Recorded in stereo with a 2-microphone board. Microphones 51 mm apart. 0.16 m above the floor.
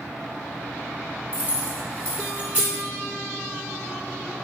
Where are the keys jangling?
25° left (ahead or behind), 1.4 m.